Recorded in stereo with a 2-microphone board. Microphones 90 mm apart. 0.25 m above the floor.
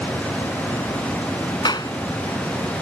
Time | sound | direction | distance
1.6 | a clap | 50° left (ahead or behind) | ?